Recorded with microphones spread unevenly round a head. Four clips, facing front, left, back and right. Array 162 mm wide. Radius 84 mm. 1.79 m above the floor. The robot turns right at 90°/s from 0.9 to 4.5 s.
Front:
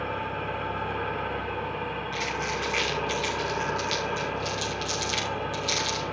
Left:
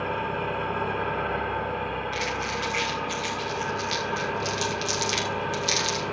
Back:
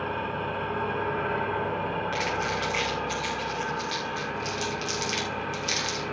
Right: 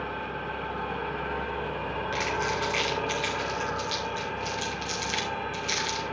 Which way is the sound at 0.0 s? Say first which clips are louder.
Left 5 dB, back 1 dB; 115° left.